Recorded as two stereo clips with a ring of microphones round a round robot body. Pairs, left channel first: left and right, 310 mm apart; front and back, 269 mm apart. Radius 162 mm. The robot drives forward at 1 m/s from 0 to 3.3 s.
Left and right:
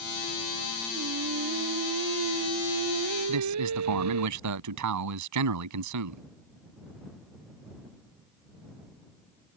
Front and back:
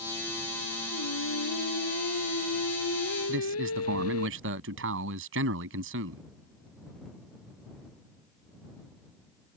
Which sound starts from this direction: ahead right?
Singing, at 0.9 s.